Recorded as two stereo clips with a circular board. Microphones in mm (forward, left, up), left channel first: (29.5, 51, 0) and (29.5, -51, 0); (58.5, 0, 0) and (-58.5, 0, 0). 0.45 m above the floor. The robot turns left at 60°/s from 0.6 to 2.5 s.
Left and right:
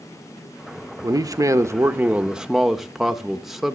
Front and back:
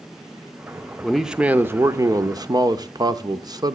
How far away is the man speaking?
About 0.8 m.